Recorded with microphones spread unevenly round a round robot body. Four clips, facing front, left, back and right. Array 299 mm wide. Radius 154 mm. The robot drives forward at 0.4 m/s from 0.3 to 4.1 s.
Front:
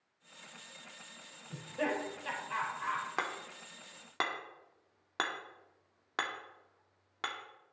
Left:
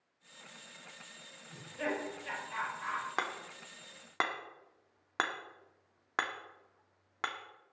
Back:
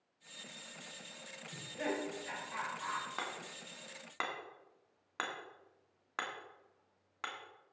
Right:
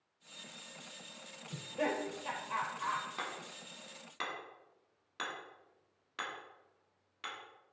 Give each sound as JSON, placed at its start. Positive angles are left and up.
{"t": 1.5, "sound": "laughter", "azimuth_deg": -55, "distance_m": 4.0}
{"t": 3.2, "sound": "hammering", "azimuth_deg": 50, "distance_m": 2.0}